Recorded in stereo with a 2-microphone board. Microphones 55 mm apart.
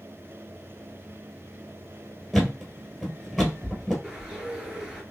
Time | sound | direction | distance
2.3 | a thud | 5° right (ahead or behind) | 1.9 m
4.0 | a bird | 15° right (ahead or behind) | 1.7 m